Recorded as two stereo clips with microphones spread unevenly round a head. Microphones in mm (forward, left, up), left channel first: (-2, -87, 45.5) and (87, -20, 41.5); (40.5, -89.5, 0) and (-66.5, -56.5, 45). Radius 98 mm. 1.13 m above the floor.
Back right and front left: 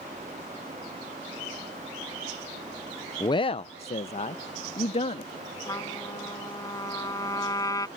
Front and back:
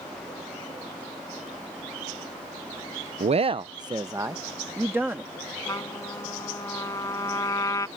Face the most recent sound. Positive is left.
turn(degrees=-85)